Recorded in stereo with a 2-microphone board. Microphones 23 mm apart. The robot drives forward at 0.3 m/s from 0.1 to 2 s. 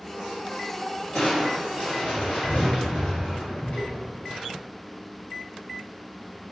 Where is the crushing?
70° left (ahead or behind), 1.8 m; by 4.4 s 65° left (ahead or behind), 1.8 m.